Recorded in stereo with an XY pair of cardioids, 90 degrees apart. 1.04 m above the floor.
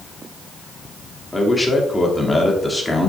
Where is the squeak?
No squeak in this recording.